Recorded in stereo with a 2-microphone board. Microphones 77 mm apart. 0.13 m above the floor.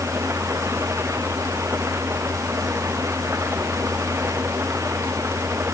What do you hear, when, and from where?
0.0 s an engine running: 30° right (ahead or behind)